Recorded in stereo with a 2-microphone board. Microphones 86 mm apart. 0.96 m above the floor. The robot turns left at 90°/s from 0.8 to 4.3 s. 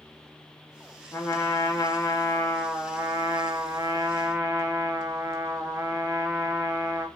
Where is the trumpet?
150° left, 1.0 m; by 7.1 s 135° right, 1.0 m.